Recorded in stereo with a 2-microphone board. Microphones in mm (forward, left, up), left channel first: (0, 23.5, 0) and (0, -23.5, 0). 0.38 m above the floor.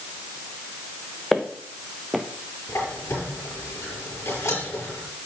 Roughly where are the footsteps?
Centre.